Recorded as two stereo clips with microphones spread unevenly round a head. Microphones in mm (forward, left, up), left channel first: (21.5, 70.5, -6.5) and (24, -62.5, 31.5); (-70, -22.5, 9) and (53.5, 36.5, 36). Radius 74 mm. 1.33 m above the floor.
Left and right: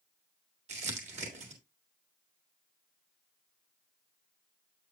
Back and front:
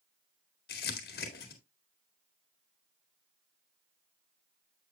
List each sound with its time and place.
0.7 s crumpling: 130° right, 1.8 m